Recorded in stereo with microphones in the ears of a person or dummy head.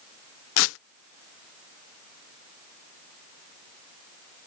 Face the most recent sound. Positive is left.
turn(degrees=85)